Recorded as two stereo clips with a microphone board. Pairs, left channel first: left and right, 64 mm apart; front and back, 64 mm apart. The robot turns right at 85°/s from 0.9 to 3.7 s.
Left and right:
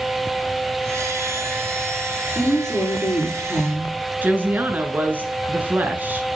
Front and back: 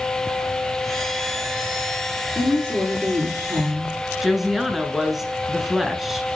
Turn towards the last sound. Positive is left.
turn(degrees=-95)